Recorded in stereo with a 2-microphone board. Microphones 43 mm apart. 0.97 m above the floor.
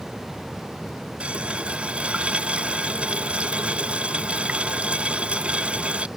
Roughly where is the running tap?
Right.